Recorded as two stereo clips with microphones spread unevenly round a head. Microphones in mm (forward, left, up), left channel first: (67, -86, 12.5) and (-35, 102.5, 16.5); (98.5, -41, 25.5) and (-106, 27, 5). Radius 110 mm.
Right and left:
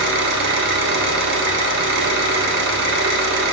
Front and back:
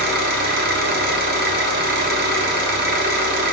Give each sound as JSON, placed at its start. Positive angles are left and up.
{"t": 0.0, "sound": "an engine running", "azimuth_deg": 120, "distance_m": 1.3}